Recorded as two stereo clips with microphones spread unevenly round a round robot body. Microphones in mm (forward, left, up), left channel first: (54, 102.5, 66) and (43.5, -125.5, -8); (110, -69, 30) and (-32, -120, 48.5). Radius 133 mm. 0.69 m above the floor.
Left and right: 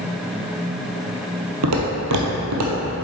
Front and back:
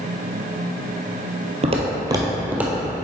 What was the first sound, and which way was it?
Footsteps, 130° right.